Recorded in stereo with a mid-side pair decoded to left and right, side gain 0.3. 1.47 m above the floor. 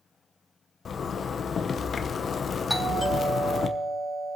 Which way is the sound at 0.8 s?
65° left.